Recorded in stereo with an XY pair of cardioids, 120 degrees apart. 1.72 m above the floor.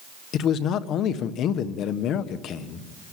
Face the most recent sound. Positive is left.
turn(degrees=65)